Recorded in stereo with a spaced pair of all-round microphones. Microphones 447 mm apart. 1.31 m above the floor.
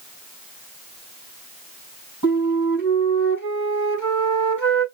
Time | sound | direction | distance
2.2 | a flute | 40° left (ahead or behind) | 4.5 m